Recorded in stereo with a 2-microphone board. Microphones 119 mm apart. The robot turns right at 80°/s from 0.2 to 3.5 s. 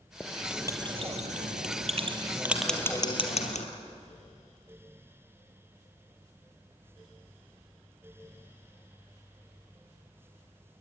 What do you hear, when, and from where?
0.2 s writing: 15° left (ahead or behind), 2.5 m; by 3.7 s 70° left (ahead or behind), 2.5 m